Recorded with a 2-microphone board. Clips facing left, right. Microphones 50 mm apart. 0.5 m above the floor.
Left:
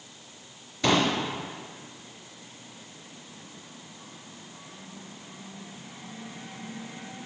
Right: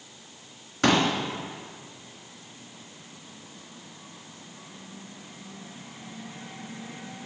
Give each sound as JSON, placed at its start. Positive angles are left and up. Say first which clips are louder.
{"t": 0.8, "sound": "a pop", "louder": "right 1 dB", "side_deg": -75, "distance_m": 3.0}